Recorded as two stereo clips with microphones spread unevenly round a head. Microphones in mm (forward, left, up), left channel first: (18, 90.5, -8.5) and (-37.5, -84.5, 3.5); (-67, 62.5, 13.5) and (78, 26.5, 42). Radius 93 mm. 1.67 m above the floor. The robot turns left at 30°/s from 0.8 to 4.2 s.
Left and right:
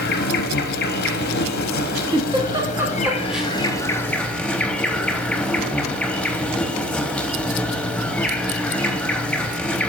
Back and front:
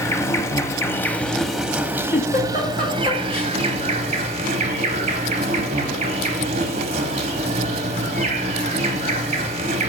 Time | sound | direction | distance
0.0 | an insect | 90° left | 0.7 m
2.1 | a giggle | 150° right | 1.2 m